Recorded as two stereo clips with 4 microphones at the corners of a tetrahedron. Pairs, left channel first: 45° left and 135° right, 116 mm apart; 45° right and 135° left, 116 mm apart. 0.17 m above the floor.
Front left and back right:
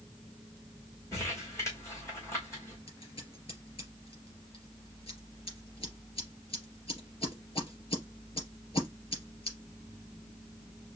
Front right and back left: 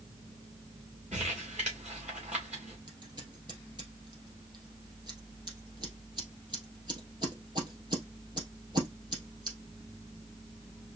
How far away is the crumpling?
About 2.5 m.